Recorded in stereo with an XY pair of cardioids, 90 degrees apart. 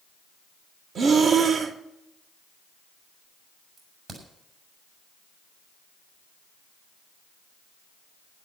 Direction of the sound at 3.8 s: 65° right.